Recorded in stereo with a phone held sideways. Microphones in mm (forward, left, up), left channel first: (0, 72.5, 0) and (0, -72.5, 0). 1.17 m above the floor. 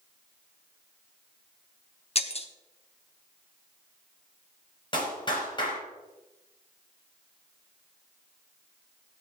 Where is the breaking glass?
45° left (ahead or behind), 1.0 m.